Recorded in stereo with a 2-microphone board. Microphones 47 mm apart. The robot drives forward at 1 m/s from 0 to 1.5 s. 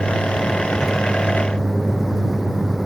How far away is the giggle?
I don't hear a giggle.